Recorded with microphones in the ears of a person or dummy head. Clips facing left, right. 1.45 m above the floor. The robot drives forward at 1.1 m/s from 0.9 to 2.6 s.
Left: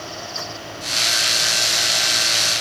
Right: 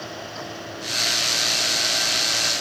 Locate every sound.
Only background noise.